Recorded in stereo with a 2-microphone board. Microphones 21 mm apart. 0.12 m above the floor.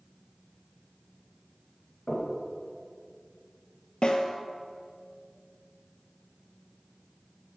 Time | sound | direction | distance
2.1 | knocking | 30° left (ahead or behind) | 1.8 m
4.0 | a snare drum | 50° left (ahead or behind) | 0.5 m